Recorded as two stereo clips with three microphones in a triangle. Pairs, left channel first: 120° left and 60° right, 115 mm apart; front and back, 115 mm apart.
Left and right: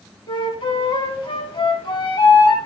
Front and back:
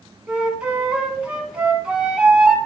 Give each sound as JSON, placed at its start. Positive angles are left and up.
{"t": 0.3, "sound": "a flute", "azimuth_deg": 105, "distance_m": 1.5}